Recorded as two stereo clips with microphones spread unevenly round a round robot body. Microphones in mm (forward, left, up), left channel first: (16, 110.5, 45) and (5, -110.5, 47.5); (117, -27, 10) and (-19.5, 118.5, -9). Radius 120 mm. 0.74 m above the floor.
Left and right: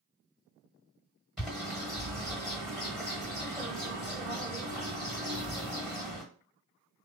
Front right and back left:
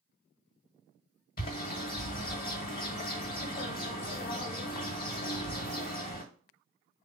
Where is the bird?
Straight ahead, 1.4 m.